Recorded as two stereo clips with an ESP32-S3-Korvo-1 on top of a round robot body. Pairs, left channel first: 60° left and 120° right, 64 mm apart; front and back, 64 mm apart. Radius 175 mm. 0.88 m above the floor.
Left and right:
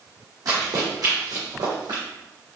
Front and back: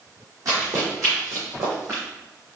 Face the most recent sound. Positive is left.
turn(degrees=-130)